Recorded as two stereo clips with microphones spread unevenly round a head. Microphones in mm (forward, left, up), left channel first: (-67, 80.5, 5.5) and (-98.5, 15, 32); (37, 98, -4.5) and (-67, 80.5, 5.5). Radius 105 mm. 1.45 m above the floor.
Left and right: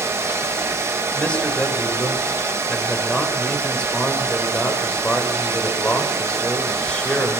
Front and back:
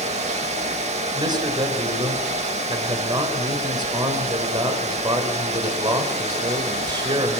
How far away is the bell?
I don't hear a bell.